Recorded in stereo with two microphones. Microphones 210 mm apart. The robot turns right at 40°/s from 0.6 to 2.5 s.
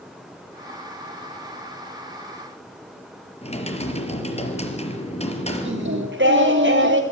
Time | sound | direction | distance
3.4 | typing on a keyboard | 30° left (ahead or behind) | 4.5 m
5.7 | singing | 60° right (ahead or behind) | 6 m